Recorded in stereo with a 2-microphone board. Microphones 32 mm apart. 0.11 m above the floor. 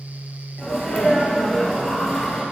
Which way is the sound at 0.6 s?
Centre (ahead or behind).